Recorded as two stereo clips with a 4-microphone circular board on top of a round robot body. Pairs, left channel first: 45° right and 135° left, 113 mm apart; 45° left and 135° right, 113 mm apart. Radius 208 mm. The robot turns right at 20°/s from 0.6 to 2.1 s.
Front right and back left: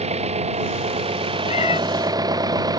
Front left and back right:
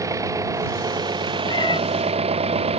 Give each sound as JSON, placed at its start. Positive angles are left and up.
{"t": 0.0, "sound": "an engine running", "azimuth_deg": 160}
{"t": 1.5, "sound": "a cat meowing", "azimuth_deg": -10}